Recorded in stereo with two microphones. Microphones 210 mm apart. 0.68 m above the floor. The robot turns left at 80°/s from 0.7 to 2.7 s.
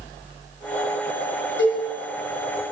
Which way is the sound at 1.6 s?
90° left.